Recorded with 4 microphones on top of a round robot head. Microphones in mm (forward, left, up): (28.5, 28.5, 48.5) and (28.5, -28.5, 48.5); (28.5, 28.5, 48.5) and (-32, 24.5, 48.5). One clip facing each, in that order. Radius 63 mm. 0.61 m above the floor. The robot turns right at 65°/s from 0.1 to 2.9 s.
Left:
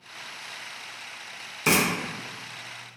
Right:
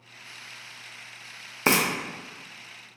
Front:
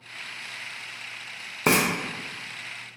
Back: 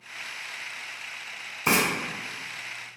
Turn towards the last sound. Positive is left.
turn(degrees=40)